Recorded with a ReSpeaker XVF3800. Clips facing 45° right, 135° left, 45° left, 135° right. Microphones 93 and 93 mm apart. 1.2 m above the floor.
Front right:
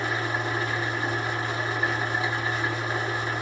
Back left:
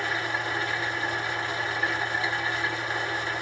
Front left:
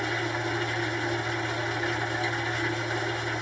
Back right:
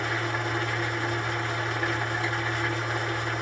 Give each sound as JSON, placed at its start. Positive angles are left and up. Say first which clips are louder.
{"t": 0.0, "sound": "an engine running", "louder": "front right 1 dB, even", "azimuth_deg": -115, "distance_m": 1.6}